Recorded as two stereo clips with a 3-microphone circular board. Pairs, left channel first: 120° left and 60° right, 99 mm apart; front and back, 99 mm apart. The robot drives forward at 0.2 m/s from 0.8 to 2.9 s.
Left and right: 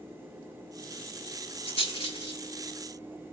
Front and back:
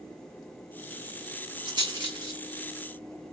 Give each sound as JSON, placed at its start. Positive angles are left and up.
{"t": 1.6, "sound": "a rattle", "azimuth_deg": 140, "distance_m": 8.0}